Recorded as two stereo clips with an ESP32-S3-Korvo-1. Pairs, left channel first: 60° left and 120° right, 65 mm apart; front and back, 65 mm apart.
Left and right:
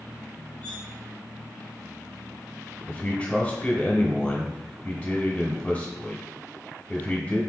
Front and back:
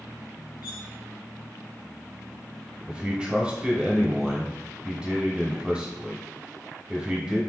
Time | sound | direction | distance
0.6 | cutlery clinking | 15° right | 1.7 m
2.9 | a man speaking | 115° left | 1.0 m